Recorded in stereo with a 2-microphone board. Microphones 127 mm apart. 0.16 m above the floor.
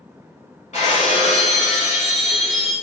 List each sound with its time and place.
0.7 s breaking glass: 65° left (ahead or behind), 8 m